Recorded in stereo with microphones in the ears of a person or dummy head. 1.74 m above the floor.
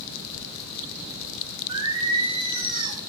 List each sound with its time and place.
1.7 s singing: 30° right (ahead or behind), 1.2 m